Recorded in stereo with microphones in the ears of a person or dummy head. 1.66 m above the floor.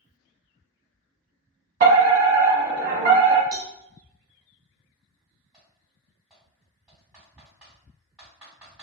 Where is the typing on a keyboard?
5° right (ahead or behind), 1.8 m.